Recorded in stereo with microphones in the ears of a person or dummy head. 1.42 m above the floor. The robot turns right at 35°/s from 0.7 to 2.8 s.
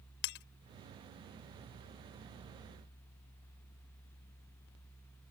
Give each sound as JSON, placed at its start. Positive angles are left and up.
{"t": 0.2, "sound": "breaking glass", "side_deg": 65}